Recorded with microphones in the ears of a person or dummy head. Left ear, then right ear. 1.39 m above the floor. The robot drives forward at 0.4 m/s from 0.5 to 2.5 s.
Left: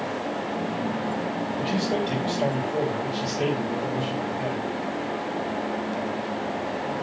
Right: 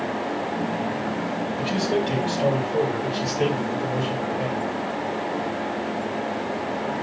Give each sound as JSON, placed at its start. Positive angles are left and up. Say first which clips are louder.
{"t": 1.6, "sound": "a man speaking", "louder": "right 3 dB", "side_deg": -10, "distance_m": 5.0}